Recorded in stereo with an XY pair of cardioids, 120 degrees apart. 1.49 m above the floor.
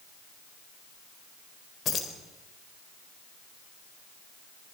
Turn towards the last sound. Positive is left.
turn(degrees=50)